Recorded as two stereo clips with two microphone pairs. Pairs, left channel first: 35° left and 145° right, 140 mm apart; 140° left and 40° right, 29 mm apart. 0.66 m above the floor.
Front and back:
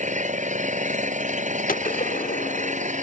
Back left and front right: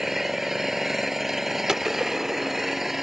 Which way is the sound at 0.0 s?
120° right.